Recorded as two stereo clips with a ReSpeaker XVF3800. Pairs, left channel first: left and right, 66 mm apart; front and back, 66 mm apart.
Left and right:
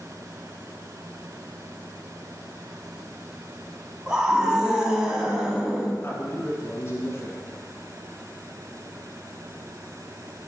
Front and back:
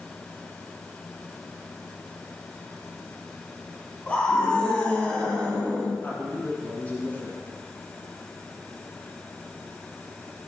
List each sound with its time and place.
4.1 s a scream: 30° right, 1.0 m
6.0 s a man speaking: 55° left, 1.5 m